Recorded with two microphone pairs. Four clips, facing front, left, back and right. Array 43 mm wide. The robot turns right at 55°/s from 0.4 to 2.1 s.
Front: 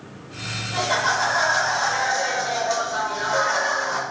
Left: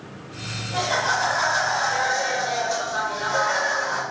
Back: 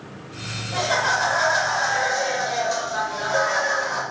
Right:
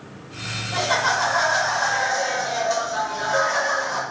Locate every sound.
0.7 s laughter: 80° right, 2 m; by 4.0 s 5° right, 2 m